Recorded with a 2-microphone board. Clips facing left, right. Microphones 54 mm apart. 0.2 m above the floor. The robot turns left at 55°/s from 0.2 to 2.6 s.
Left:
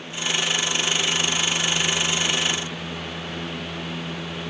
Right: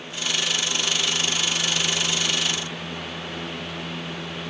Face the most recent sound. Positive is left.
No sound to turn to.